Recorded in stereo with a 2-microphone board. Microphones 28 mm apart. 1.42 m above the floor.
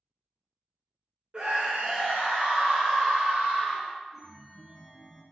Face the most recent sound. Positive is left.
turn(degrees=5)  # may be behind; listen again after turning